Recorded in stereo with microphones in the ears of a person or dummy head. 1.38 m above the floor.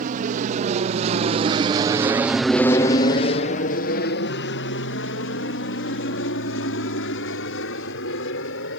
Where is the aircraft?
45° right (ahead or behind); by 8.8 s 65° left (ahead or behind).